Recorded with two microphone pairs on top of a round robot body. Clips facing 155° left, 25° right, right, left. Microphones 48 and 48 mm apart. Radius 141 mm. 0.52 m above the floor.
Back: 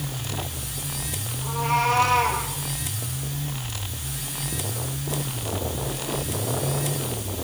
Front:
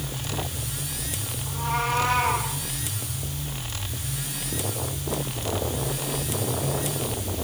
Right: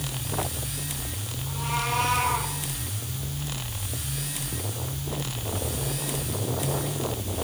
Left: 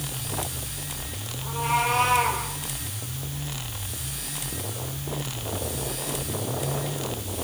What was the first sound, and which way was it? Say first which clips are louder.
A cat meowing: back 5 dB, left 5 dB; 150° left.